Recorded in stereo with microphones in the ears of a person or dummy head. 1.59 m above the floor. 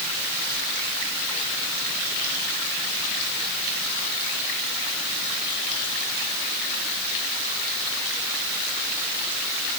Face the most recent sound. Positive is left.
No sound to turn to.